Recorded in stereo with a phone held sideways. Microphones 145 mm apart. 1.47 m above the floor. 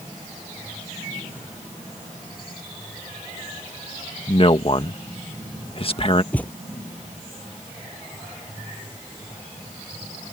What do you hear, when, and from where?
4.3 s a man speaking: 40° left (ahead or behind)
6.3 s a thud: 10° left (ahead or behind)